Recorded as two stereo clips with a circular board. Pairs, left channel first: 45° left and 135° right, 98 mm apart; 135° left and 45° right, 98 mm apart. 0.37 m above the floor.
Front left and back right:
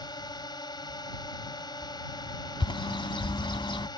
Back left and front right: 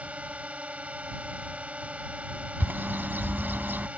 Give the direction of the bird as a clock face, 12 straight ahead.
11 o'clock.